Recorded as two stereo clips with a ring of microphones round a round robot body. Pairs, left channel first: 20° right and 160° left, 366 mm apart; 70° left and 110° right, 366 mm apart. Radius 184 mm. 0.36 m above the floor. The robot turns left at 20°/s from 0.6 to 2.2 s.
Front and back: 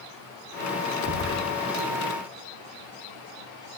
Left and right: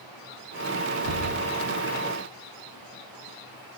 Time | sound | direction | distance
1.0 | knocking | 150° right | 7.5 m